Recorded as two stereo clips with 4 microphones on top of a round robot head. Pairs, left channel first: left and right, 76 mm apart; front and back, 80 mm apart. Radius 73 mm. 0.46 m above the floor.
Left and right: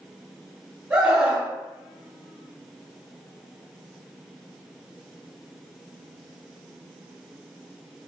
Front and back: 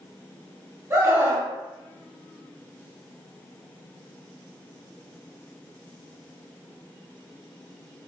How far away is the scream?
About 1.2 m.